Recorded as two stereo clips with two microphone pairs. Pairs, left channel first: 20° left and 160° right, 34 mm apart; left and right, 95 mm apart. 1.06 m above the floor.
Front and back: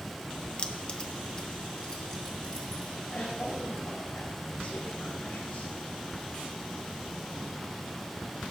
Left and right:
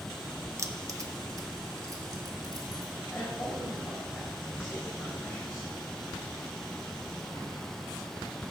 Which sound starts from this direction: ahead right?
Keys jangling, at 0.6 s.